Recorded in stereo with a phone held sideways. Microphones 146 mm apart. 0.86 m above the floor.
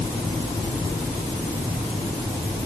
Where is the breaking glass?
No breaking glass in this recording.